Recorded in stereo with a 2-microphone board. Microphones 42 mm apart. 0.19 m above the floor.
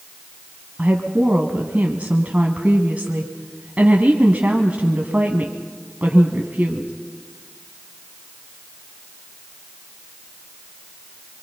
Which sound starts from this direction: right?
A woman speaking, at 0.8 s.